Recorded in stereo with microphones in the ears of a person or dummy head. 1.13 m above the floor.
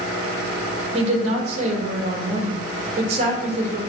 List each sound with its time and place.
0.9 s a woman speaking: 35° right (ahead or behind), 1.6 m